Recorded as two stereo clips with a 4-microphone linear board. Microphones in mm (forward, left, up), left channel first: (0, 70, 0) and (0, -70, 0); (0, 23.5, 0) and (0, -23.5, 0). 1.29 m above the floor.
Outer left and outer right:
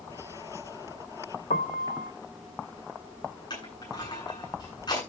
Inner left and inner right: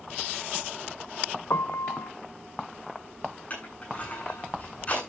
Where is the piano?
75° left (ahead or behind), 0.8 m.